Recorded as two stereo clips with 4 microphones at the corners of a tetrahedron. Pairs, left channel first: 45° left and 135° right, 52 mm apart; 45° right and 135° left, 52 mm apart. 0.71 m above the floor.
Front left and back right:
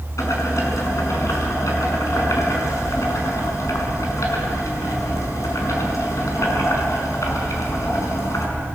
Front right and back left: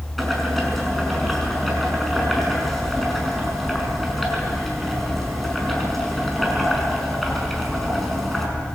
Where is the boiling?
45° left, 5.5 m.